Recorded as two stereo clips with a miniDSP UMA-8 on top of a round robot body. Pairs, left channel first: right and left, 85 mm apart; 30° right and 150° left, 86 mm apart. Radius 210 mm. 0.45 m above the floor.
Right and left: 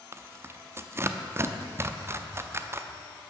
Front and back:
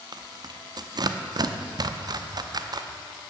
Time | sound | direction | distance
0.1 | tearing paper | 140° left | 1.0 m